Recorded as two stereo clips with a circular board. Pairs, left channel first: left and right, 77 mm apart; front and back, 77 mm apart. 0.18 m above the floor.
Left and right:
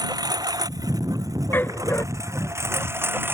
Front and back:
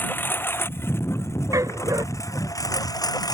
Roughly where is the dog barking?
Behind left.